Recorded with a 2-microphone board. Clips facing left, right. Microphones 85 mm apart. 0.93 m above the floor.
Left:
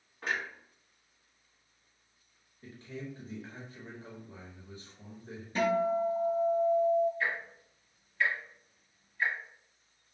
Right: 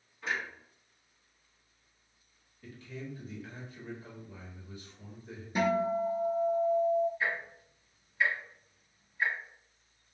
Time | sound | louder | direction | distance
0.2 | a clunk | left 1 dB | 55° left (ahead or behind) | 1.1 m
2.6 | a man speaking | left 1 dB | 30° left (ahead or behind) | 1.0 m
5.5 | a guitar | left 1 dB | 15° right (ahead or behind) | 0.6 m
7.2 | ticking | even | 10° right (ahead or behind) | 1.3 m